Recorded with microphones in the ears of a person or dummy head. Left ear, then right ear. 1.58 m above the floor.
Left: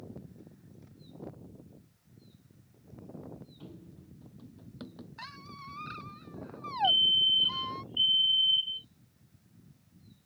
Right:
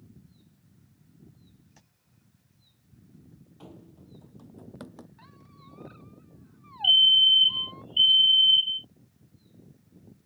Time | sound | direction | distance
3.6 | running footsteps | 35° right (ahead or behind) | ?
5.2 | a squeak | 55° left (ahead or behind) | ?
6.8 | a fire alarm | 70° right (ahead or behind) | ?